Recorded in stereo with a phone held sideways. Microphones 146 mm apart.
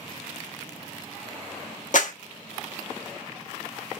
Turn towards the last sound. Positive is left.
turn(degrees=65)  # may be behind; listen again after turning